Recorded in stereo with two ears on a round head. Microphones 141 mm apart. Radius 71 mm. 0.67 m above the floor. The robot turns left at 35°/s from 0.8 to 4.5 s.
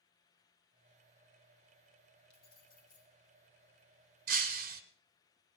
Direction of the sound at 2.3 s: 75° left (ahead or behind).